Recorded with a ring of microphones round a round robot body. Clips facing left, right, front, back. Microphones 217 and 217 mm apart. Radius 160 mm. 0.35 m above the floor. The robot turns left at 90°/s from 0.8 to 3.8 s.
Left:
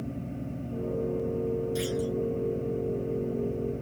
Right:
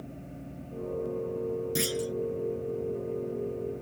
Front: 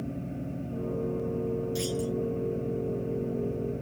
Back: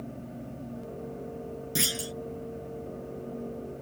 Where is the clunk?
135° right; by 2.1 s 170° right.